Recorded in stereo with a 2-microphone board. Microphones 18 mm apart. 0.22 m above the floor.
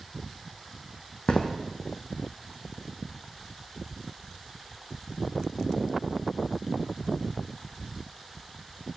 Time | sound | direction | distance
1.3 | footsteps | 60° left (ahead or behind) | 0.5 m